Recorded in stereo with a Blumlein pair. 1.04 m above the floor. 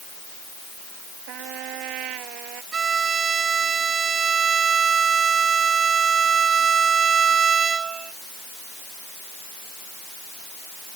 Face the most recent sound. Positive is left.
turn(degrees=-20)